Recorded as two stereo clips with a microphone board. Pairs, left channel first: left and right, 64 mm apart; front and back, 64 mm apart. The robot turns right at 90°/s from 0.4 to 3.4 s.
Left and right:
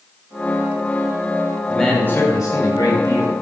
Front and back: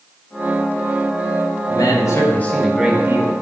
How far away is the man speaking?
About 3.5 m.